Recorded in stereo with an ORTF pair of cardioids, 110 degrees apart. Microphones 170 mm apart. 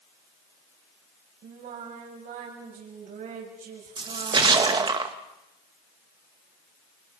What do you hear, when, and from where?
1.4 s singing: 55° right, 7.5 m
4.0 s a splash: 30° right, 1.9 m